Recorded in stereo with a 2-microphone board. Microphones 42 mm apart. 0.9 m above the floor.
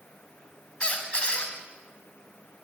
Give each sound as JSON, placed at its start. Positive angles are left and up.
{"t": 0.8, "sound": "a squeak", "side_deg": 30, "distance_m": 1.0}